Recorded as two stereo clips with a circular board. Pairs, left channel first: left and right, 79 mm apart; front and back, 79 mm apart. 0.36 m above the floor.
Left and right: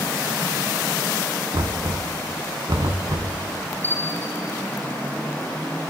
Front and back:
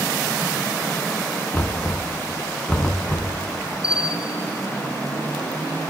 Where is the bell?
30° left, 2.5 m.